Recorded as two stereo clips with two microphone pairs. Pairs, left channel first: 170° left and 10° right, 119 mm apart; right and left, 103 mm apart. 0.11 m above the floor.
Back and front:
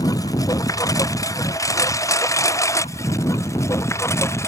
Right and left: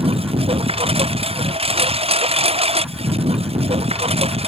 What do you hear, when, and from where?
0.0 s a lawn mower: 110° left; by 4.5 s 100° left